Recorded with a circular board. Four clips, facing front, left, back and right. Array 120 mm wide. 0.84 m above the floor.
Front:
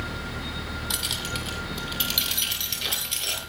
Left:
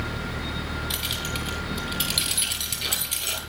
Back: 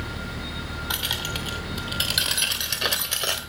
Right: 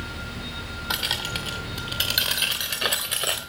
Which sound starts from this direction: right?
Keys jangling, at 0.9 s.